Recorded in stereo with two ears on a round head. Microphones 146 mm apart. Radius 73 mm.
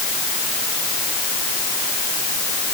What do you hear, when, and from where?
Only background noise.